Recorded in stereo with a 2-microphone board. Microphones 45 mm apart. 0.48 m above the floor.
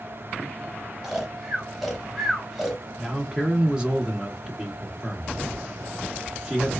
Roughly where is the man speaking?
Centre.